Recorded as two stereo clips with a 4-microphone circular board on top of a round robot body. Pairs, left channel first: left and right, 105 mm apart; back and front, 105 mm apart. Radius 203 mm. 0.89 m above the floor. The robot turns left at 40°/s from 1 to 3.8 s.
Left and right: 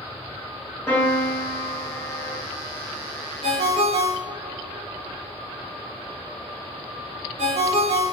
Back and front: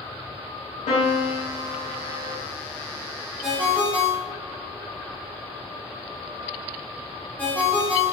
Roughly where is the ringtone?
Right.